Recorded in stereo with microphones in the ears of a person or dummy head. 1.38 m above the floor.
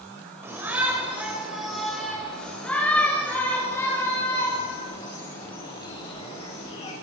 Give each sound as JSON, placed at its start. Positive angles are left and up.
{"t": 0.4, "sound": "a shout", "side_deg": -10, "distance_m": 7.5}